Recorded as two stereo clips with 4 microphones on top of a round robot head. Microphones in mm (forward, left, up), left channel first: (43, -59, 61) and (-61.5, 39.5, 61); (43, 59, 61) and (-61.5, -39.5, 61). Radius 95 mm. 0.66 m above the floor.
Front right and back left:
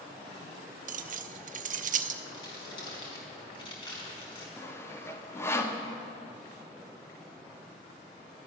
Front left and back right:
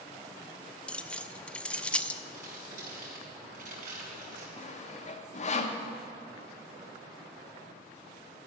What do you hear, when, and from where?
0.9 s keys jangling: 125° left, 0.7 m
2.3 s crumpling: 100° right, 4.5 m
4.6 s sawing: 25° left, 1.2 m